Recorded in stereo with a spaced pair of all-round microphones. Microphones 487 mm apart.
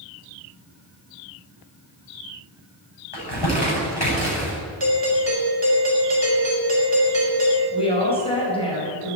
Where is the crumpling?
50° left (ahead or behind), 7.5 m.